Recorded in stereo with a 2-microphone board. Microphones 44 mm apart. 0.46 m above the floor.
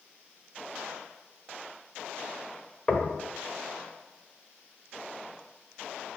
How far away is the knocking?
About 1.0 m.